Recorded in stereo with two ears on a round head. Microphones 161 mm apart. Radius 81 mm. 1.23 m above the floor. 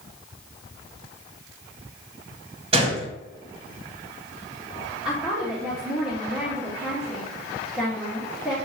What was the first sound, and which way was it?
A gunshot, 35° right (ahead or behind).